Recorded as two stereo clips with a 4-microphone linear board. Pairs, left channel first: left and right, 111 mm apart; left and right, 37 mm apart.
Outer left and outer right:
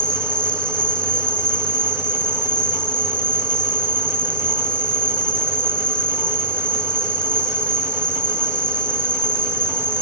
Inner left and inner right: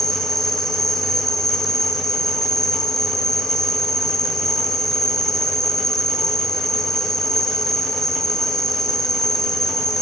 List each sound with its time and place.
0.0 s an insect: 10° left (ahead or behind), 0.8 m